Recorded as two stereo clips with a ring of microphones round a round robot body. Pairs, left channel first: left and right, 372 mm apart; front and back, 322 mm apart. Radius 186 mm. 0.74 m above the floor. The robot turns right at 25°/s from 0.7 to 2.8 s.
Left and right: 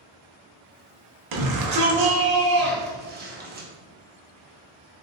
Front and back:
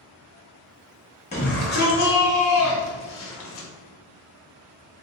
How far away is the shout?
About 0.9 m.